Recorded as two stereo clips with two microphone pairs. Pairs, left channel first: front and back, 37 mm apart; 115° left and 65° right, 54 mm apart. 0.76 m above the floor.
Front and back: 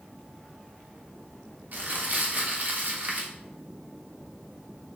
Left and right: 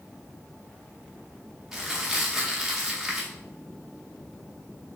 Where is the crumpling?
145° right, 0.7 m.